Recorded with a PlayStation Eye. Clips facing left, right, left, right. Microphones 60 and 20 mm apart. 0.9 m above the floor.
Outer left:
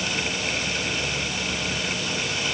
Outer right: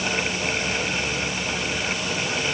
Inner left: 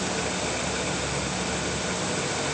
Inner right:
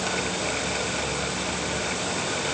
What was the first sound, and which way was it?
Only background noise.